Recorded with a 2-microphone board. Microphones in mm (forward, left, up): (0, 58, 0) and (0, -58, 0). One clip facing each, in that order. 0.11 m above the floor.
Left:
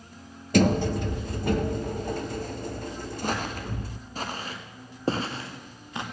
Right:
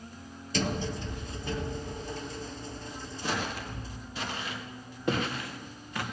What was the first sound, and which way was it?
A sliding door, 60° left (ahead or behind).